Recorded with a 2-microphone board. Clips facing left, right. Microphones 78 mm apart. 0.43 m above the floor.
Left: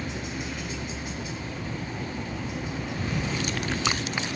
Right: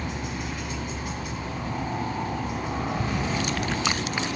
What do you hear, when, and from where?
0.0 s a helicopter: 50° right (ahead or behind)